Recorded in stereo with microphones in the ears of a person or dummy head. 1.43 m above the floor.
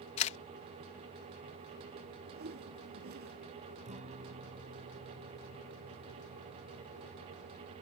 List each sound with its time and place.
0.2 s a camera shutter: 35° left (ahead or behind)
2.3 s a whoosh: 55° right (ahead or behind)
3.9 s a guitar: 35° right (ahead or behind)